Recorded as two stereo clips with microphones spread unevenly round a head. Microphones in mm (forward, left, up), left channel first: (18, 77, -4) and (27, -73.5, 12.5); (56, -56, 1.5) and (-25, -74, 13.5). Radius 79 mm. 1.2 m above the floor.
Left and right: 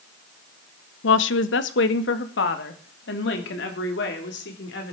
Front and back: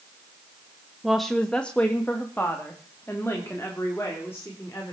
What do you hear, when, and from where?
1.0 s a woman speaking: 105° left, 0.7 m; by 4.9 s 90° left, 3.5 m